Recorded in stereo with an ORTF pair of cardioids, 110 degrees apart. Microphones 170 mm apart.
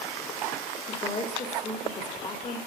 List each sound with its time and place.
0.9 s a woman speaking: 30° left, 2.5 m